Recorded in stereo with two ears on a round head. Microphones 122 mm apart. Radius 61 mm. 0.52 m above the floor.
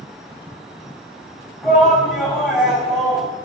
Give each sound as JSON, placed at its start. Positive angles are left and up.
{"t": 1.6, "sound": "a shout", "side_deg": 0, "distance_m": 2.5}